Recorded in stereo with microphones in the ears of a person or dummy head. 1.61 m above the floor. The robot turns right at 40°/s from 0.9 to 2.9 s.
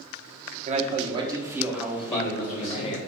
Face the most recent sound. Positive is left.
turn(degrees=155)